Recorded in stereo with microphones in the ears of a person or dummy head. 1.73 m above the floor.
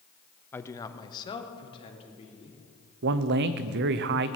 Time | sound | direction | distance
0.5 | a man speaking | 15° left (ahead or behind) | 0.7 m
3.0 | a man speaking | 60° right (ahead or behind) | 0.7 m